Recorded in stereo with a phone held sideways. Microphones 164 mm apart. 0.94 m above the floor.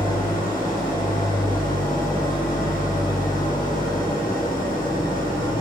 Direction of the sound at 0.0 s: 60° left (ahead or behind).